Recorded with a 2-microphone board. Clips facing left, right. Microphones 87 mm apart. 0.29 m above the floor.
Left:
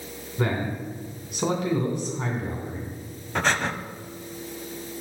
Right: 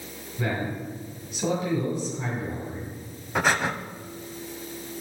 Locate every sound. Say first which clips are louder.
0.4 s a man speaking: left 2 dB; 60° left (ahead or behind), 2.5 m
3.4 s breathing: right 1 dB; 10° right (ahead or behind), 0.5 m